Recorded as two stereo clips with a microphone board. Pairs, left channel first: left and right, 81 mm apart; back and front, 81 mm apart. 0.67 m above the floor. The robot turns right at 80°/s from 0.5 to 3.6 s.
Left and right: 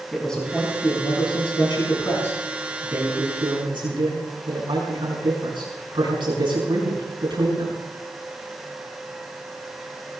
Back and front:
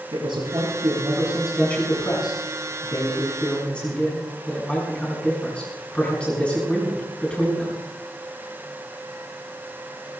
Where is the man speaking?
10° left, 6 m; by 7.8 s 105° right, 6 m.